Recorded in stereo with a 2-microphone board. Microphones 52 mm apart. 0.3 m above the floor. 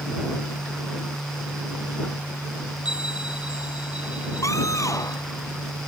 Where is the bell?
20° right (ahead or behind).